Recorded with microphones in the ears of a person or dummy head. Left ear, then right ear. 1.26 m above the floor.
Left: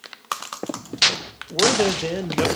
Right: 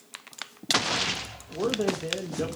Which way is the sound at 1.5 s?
70° left (ahead or behind).